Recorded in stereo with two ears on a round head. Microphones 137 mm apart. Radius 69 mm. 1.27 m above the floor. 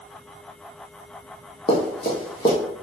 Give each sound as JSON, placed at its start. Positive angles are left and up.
{"t": 1.7, "sound": "running footsteps", "side_deg": 35, "distance_m": 1.8}